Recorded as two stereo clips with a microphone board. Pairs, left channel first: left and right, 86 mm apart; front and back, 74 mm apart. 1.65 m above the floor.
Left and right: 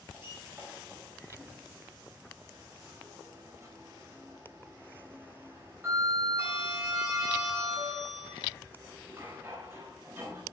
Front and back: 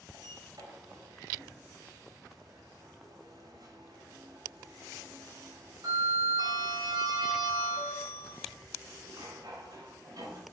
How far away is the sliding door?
About 5 m.